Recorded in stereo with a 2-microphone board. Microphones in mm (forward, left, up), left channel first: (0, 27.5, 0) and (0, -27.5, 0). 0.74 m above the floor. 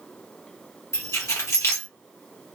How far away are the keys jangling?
About 0.9 m.